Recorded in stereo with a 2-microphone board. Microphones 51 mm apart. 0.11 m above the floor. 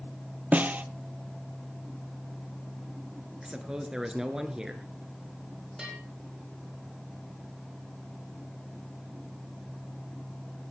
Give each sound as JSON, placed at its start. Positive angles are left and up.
{"t": 0.5, "sound": "a snare drum", "side_deg": -30, "distance_m": 0.7}
{"t": 3.4, "sound": "a man speaking", "side_deg": -15, "distance_m": 1.3}
{"t": 5.8, "sound": "a bell", "side_deg": -15, "distance_m": 7.0}